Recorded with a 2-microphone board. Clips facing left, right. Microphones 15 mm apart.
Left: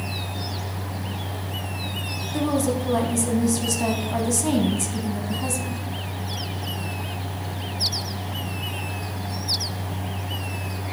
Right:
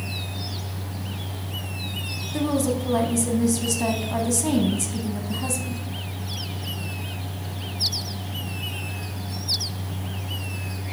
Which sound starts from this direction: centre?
A woman speaking, at 2.3 s.